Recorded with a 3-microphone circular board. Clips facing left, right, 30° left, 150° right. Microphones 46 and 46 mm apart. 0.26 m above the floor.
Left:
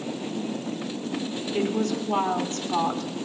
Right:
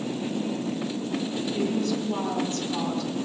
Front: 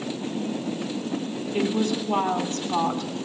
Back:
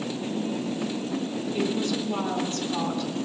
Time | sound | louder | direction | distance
1.5 | a woman speaking | left 2 dB, front 3 dB | 50° left | 2.5 m